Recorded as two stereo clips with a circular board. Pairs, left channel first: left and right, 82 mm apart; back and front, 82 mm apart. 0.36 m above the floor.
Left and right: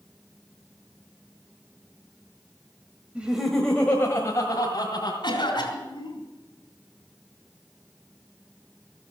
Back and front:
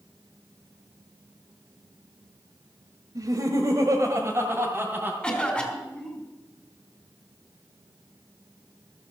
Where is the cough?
105° left, 4 m.